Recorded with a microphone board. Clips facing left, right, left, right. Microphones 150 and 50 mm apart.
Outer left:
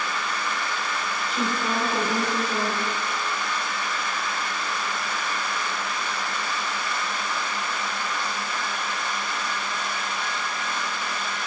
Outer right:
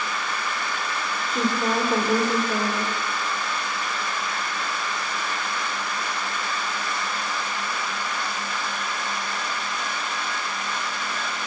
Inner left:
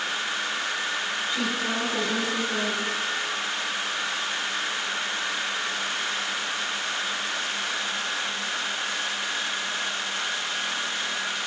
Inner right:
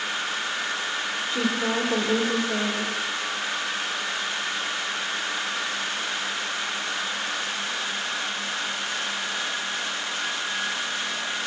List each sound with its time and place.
1.3 s a woman speaking: 45° right (ahead or behind), 2.5 m